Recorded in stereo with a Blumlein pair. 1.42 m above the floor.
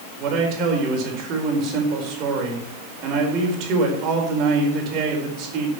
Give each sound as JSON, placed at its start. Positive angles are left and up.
{"t": 0.2, "sound": "a man speaking", "azimuth_deg": -35, "distance_m": 4.5}